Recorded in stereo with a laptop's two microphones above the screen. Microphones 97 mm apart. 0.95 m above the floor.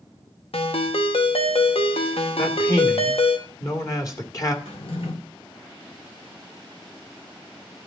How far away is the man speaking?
About 1.9 m.